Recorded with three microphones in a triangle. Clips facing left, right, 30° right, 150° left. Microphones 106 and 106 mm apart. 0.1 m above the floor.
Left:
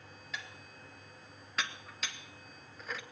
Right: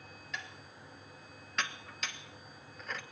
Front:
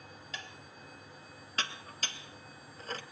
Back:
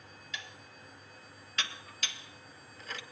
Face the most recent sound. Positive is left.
turn(degrees=0)